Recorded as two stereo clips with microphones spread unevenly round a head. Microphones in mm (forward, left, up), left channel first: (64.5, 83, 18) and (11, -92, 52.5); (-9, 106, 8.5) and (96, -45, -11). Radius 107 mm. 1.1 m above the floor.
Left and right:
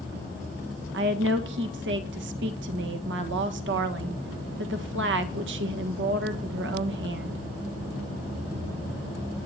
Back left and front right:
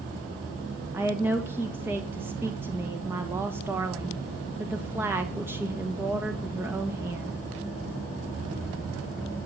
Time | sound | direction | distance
0.9 | a woman speaking | 130° right | 1.4 m